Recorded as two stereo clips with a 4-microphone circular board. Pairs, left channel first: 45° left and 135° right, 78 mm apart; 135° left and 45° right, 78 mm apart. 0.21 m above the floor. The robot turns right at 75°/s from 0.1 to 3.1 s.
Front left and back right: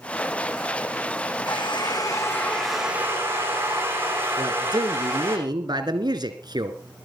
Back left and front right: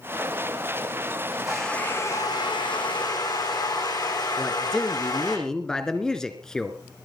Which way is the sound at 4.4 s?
145° right.